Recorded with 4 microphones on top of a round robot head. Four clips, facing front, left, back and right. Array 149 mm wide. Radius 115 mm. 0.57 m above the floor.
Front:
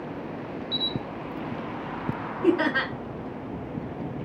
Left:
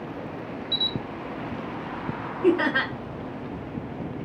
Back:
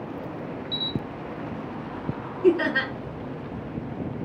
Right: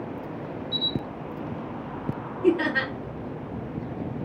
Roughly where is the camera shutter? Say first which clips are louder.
Right 2 dB, even; behind left.